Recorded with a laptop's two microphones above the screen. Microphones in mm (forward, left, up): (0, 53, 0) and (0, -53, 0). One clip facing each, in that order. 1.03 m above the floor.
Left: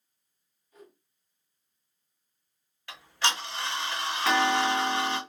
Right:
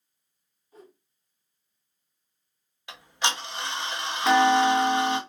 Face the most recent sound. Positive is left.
turn(degrees=-20)  # may be behind; listen again after turning